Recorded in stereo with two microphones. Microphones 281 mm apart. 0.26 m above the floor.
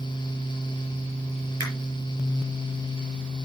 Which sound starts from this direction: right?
A finger snap, at 1.6 s.